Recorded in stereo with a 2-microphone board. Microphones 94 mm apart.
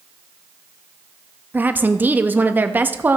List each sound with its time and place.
1.5 s a woman speaking: 20° right (ahead or behind), 0.6 m